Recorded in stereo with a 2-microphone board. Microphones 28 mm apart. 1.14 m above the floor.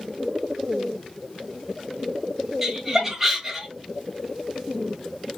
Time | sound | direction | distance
2.6 | laughter | 5° right (ahead or behind) | 1.1 m